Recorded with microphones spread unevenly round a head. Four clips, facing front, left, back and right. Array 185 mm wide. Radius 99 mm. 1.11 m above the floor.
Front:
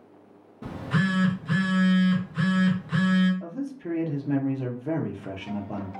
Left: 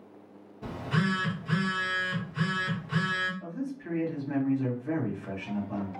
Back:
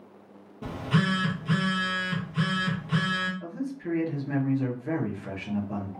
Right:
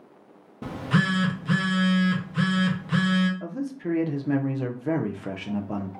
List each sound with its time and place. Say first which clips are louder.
0.6 s a phone buzzing: right 5 dB, even; 105° right, 0.8 m
3.4 s a man speaking: right 5 dB, even; 75° right, 0.7 m